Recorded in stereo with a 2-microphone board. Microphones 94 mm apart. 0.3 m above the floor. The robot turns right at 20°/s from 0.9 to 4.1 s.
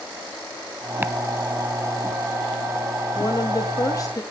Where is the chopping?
20° right (ahead or behind), 0.6 m.